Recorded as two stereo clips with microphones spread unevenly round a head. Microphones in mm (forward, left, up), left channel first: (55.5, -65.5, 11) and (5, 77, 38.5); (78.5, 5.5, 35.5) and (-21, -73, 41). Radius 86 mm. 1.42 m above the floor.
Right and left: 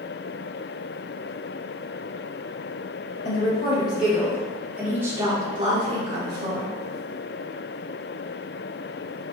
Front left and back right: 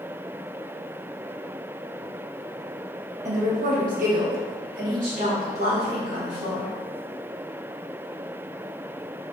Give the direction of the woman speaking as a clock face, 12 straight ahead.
4 o'clock.